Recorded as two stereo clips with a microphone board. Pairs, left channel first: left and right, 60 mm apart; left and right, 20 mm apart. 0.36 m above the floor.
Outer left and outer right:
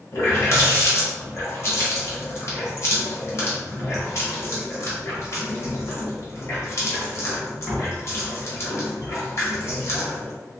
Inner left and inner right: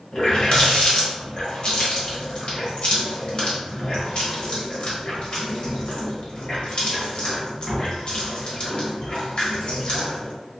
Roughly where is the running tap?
Left.